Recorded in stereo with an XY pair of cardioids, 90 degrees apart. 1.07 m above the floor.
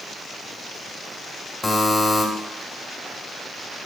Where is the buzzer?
25° left, 1.5 m.